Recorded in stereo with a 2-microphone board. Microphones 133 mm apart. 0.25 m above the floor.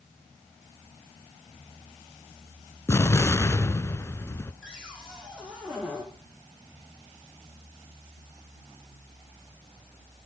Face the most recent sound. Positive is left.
turn(degrees=-5)  # may be behind; listen again after turning